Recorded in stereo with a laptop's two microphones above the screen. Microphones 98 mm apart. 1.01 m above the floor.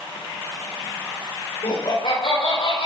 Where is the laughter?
75° left (ahead or behind), 5 m.